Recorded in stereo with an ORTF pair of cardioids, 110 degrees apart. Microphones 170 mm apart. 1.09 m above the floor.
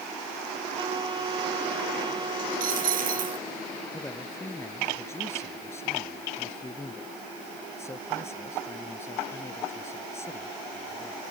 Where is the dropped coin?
55° right.